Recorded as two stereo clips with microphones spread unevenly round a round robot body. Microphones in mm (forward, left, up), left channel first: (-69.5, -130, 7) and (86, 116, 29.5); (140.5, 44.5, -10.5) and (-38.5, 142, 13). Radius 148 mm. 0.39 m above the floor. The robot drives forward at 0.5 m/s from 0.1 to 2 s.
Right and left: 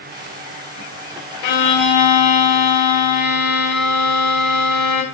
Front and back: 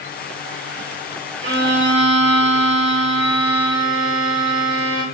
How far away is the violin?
About 0.5 m.